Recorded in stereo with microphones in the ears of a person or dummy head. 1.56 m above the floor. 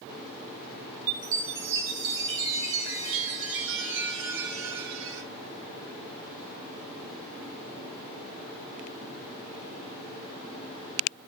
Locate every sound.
1.1 s a chime: 70° right (ahead or behind), 3 m